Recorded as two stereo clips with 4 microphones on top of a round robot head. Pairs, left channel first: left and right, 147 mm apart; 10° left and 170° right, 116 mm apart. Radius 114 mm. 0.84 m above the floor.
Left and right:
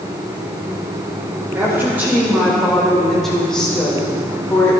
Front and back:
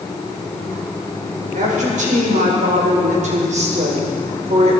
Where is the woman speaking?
165° right, 3.5 m; by 4.8 s 165° left, 3.5 m.